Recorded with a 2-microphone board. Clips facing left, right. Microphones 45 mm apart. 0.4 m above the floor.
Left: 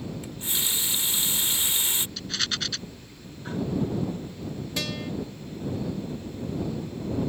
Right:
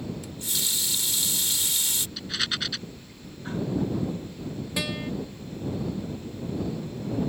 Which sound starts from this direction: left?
A running tap, at 0.2 s.